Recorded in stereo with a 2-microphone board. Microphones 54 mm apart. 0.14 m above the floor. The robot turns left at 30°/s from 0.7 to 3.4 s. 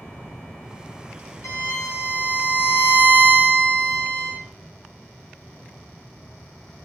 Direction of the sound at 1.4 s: 80° left.